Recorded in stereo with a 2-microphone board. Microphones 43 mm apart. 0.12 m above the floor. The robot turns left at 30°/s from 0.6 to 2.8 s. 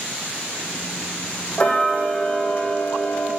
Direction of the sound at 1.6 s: 155° left.